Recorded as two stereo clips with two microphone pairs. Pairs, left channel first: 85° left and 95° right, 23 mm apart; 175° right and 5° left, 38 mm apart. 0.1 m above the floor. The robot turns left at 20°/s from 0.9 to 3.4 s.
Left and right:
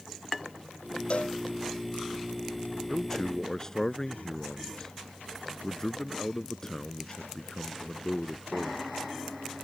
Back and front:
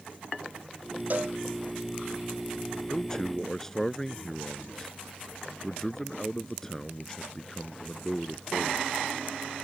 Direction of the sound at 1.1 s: 50° left.